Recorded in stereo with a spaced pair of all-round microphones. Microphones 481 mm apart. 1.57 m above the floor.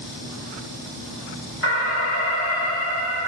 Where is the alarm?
80° left, 2.5 m.